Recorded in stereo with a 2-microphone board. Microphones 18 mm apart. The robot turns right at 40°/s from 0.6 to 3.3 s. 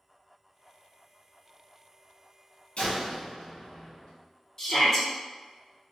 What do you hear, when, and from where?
2.8 s a door slam: 55° left (ahead or behind), 1.9 m; by 4.1 s 30° left (ahead or behind), 1.9 m
4.6 s a shout: 25° left (ahead or behind), 1.0 m